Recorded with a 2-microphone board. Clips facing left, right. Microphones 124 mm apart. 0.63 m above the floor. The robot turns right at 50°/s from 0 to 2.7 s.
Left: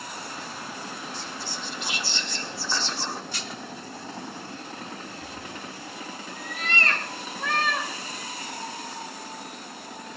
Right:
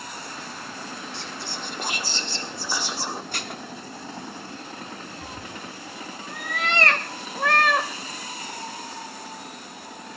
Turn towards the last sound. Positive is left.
turn(degrees=-65)  # may be behind; listen again after turning